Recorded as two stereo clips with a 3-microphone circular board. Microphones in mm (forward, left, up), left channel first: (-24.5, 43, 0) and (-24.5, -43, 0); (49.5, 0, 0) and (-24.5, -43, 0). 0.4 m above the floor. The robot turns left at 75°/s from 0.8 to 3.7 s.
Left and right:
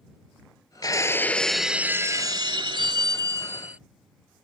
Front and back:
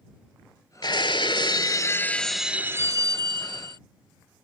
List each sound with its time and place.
0.8 s breaking glass: 55° left; by 3.8 s 160° right